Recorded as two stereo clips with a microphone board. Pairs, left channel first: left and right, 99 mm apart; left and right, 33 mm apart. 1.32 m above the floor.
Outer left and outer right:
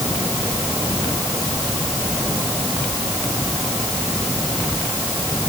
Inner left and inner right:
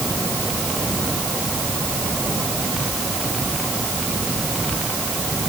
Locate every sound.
Only background noise.